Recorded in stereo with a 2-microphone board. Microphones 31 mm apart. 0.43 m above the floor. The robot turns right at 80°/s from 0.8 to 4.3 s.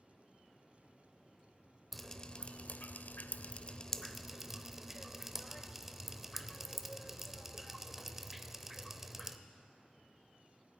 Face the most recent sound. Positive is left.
turn(degrees=-10)  # may be behind; listen again after turning